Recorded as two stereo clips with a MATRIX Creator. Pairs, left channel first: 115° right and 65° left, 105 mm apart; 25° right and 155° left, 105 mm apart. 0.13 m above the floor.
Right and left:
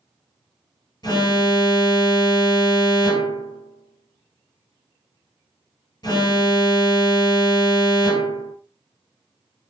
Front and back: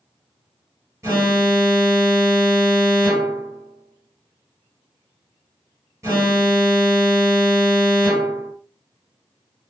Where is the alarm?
145° right, 1.2 m.